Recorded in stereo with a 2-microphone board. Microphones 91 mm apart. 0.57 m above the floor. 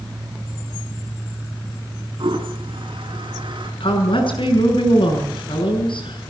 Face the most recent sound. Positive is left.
turn(degrees=65)  # may be behind; listen again after turning